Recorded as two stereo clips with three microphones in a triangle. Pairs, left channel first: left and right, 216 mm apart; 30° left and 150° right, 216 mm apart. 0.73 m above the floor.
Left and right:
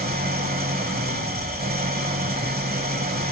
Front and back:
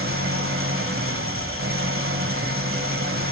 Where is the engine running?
135° right, 1.4 m.